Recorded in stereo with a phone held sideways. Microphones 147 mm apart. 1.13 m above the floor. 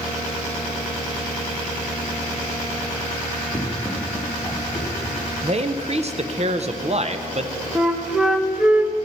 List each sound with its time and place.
3.5 s running footsteps: 10° right (ahead or behind), 5 m; by 5.2 s 25° right (ahead or behind), 7 m
5.4 s a man speaking: 45° right (ahead or behind), 0.6 m
7.8 s a flute: 5° right (ahead or behind), 0.8 m